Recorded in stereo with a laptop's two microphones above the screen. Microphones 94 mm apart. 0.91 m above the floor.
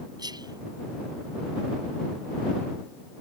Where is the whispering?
45° right (ahead or behind).